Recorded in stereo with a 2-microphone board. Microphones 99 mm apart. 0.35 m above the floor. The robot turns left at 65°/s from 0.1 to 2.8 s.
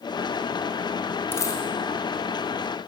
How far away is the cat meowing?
I don't hear a cat meowing.